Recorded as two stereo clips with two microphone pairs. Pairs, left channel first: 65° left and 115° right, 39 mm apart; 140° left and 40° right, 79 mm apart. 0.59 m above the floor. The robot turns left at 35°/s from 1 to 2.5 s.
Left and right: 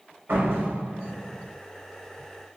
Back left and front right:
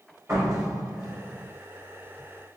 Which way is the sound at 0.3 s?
90° right.